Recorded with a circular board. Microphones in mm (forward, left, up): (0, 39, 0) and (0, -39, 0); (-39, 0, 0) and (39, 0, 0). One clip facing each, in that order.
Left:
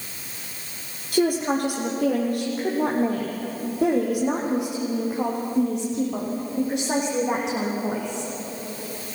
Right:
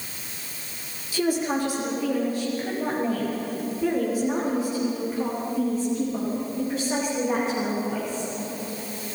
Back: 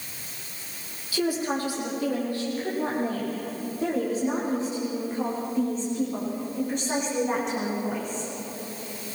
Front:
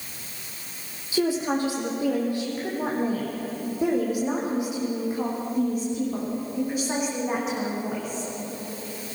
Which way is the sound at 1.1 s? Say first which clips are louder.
Left 3 dB, front 2 dB; 65° left.